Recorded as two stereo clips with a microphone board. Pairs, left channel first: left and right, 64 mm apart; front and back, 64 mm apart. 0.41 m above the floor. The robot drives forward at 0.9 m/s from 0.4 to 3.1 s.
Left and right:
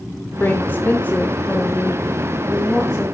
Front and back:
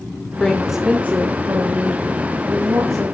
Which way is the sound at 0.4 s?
65° left.